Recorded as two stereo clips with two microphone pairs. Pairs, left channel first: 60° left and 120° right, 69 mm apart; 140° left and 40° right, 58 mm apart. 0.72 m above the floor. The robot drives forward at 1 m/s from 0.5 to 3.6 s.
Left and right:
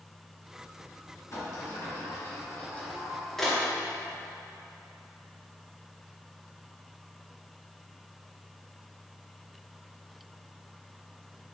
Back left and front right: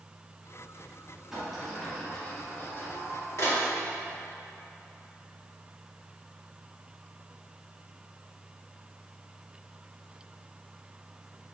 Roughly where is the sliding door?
Ahead left.